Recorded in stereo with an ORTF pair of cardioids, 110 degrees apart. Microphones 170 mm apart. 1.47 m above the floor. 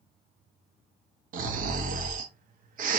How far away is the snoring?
About 0.7 m.